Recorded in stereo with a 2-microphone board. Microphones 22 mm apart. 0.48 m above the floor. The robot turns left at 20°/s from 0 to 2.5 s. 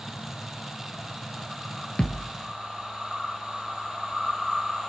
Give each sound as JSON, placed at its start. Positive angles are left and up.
{"t": 2.0, "sound": "a thud", "side_deg": 45, "distance_m": 1.7}